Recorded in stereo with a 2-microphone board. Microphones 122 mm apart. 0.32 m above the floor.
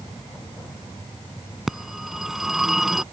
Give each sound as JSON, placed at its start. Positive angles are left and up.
{"t": 1.7, "sound": "a phone ringing", "side_deg": -5}